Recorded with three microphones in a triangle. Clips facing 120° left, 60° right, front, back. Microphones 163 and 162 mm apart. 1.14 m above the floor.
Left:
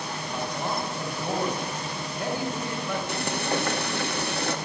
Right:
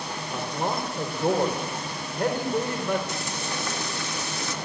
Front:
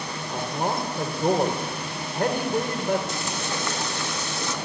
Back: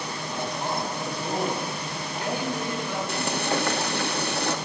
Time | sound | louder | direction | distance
0.3 | a man speaking | right 2 dB, front 3 dB | 30° right | 4 m
3.1 | frying | left 5 dB, back 4 dB | 150° left | 1.7 m